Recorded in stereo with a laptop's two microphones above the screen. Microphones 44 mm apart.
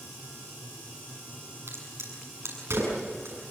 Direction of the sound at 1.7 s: 75° right (ahead or behind).